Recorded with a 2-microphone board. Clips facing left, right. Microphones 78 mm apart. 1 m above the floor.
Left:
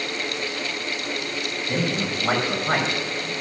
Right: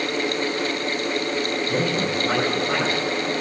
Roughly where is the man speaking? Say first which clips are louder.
Even; left.